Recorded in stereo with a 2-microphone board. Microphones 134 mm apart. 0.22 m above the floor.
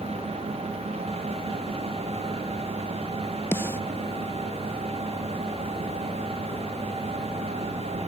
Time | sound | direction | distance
3.5 | a snare drum | 15° left (ahead or behind) | ?